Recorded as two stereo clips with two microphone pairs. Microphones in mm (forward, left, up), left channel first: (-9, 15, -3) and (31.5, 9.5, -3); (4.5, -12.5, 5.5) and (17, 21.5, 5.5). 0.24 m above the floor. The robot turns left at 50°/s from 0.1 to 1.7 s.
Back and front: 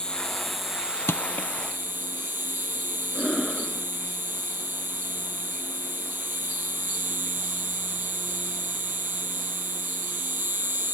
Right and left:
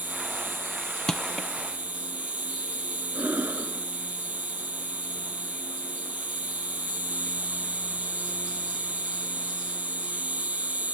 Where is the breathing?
90° left.